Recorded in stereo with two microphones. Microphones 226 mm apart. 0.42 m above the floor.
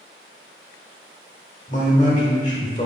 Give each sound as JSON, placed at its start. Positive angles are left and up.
{"t": 1.7, "sound": "a man speaking", "side_deg": 35, "distance_m": 0.9}